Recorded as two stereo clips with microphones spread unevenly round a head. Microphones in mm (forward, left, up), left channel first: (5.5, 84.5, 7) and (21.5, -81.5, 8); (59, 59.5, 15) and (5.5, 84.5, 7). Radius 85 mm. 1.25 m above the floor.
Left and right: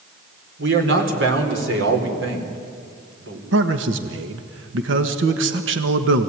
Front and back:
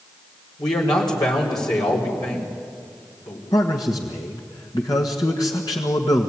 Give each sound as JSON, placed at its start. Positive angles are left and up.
{"t": 0.6, "sound": "a man speaking", "azimuth_deg": -70, "distance_m": 4.0}
{"t": 3.5, "sound": "a man speaking", "azimuth_deg": -80, "distance_m": 1.5}